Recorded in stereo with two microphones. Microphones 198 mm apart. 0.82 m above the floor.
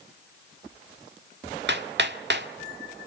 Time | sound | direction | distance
1.7 | hammering | 60° right (ahead or behind) | 1.8 m